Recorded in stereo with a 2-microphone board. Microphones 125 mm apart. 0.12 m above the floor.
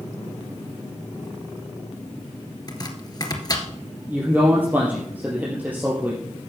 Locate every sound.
2.7 s chopping: 35° left (ahead or behind), 2 m
4.1 s a man speaking: 15° right (ahead or behind), 3 m